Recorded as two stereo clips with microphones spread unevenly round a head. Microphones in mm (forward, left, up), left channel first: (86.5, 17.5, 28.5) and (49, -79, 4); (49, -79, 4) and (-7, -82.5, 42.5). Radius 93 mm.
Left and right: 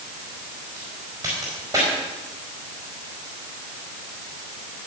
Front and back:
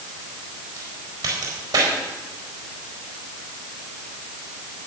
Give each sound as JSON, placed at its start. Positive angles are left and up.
{"t": 0.8, "sound": "a crack", "azimuth_deg": 175, "distance_m": 4.5}